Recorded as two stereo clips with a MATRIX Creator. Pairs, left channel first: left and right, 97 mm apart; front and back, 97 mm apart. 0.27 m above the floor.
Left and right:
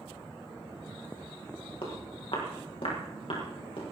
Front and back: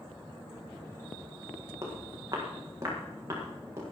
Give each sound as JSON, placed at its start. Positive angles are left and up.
{"t": 1.8, "sound": "footsteps", "azimuth_deg": 120, "distance_m": 7.0}